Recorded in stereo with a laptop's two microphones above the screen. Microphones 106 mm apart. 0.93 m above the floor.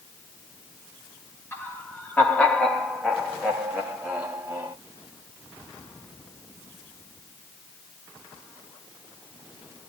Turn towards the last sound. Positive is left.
turn(degrees=-20)  # may be behind; listen again after turning